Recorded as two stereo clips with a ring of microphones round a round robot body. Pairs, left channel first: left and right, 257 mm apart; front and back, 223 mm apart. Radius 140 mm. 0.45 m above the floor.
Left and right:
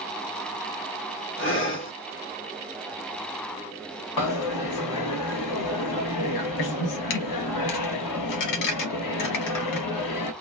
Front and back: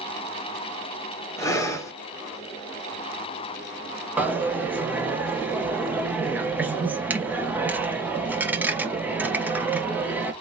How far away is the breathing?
About 1.5 m.